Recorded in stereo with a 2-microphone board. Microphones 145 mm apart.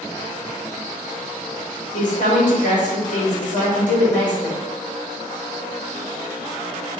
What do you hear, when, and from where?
1.9 s a woman speaking: 60° left (ahead or behind), 1.4 m